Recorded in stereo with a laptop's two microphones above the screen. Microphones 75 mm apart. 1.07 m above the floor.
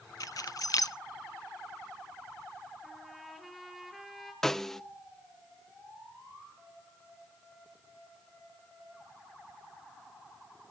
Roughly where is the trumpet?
Centre.